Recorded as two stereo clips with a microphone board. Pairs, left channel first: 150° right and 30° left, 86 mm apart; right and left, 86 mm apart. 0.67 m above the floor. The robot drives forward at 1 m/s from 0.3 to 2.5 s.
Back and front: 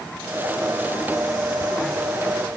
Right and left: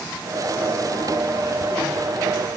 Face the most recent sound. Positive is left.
No sound to turn to.